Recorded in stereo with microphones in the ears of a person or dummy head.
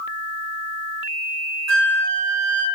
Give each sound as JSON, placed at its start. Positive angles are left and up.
{"t": 1.7, "sound": "a flute", "side_deg": -65, "distance_m": 1.0}